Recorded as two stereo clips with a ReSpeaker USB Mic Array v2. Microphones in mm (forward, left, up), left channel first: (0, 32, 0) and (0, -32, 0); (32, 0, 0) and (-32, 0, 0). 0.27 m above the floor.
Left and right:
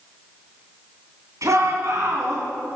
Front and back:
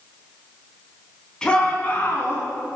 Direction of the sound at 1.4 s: 75° right.